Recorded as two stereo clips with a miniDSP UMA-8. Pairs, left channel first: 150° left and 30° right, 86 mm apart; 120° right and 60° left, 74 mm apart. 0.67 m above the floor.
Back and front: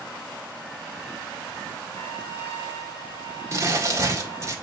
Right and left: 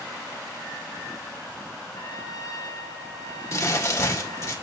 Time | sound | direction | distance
1.9 | a trumpet | 155° right | 3 m
3.5 | crumpling | 80° right | 2 m